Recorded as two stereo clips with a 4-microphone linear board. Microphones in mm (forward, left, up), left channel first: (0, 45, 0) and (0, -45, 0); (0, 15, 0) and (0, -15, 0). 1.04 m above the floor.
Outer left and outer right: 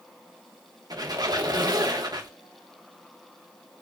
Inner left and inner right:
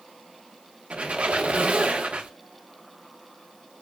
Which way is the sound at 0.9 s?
45° right (ahead or behind).